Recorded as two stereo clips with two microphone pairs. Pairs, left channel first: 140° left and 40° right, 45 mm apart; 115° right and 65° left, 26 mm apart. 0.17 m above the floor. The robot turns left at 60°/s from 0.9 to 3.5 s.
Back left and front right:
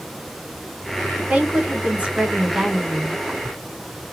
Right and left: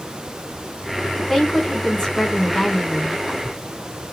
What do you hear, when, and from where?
1.2 s a woman speaking: 15° right, 1.9 m; by 3.2 s 135° right, 1.9 m